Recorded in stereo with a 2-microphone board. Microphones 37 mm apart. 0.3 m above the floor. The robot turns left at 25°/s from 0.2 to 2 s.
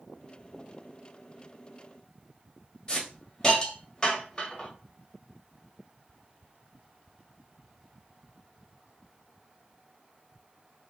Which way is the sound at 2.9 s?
25° left (ahead or behind).